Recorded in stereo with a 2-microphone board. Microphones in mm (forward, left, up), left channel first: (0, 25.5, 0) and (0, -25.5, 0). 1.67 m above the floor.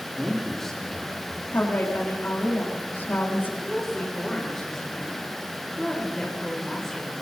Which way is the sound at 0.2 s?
10° left (ahead or behind).